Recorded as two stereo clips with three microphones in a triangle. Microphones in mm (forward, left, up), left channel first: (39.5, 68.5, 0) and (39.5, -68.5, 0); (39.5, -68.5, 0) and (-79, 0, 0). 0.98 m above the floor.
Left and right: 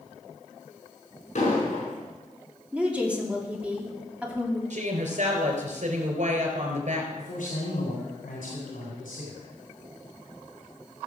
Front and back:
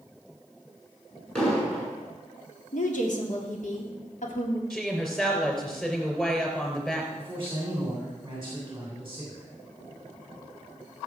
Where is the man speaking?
80° left, 3 m.